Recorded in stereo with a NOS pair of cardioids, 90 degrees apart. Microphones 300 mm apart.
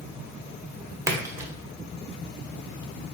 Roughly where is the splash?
Ahead.